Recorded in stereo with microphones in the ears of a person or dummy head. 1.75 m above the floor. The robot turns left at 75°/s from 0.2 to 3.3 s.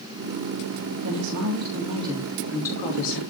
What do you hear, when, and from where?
1.0 s a woman speaking: 80° right, 3 m; by 3.2 s 120° left, 3 m